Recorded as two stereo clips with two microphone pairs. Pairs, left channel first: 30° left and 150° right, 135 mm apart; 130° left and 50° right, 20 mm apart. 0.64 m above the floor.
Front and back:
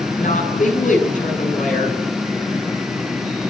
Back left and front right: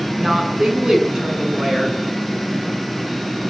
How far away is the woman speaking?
About 7.5 m.